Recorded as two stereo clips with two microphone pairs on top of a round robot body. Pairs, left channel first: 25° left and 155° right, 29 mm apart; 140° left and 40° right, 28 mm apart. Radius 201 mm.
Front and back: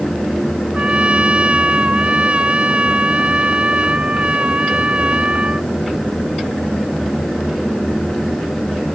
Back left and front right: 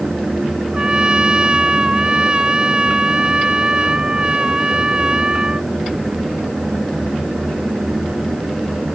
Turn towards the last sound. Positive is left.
turn(degrees=-100)